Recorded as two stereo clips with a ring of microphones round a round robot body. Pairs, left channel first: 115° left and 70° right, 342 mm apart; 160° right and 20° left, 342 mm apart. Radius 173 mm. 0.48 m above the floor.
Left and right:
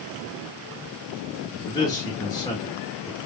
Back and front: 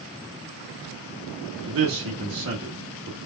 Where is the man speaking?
40° left, 1.0 m.